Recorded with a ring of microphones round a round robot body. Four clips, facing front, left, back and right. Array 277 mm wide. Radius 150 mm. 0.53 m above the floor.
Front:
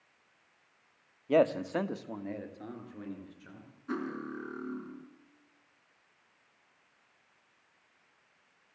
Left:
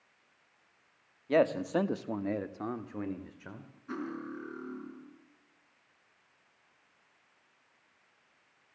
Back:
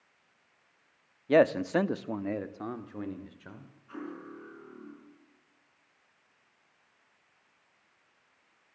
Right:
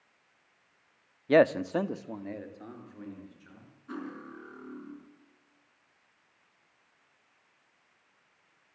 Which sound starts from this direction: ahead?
Cutlery clinking, at 3.9 s.